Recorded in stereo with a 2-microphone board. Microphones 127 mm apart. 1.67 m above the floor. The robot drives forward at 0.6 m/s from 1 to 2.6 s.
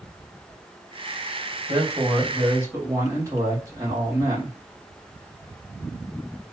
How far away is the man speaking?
About 1.8 m.